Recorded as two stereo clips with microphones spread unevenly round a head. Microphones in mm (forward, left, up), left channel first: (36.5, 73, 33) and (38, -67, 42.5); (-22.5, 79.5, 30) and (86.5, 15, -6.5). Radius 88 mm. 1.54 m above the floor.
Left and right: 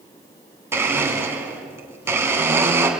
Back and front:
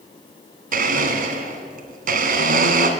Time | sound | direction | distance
0.7 | a blender | 25° right | 2.5 m